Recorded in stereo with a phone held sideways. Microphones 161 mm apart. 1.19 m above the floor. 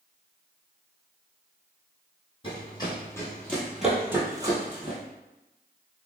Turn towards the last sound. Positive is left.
turn(degrees=-35)  # may be behind; listen again after turning